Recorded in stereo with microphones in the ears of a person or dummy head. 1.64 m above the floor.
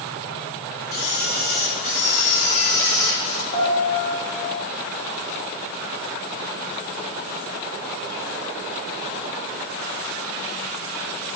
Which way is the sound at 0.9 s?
70° left (ahead or behind).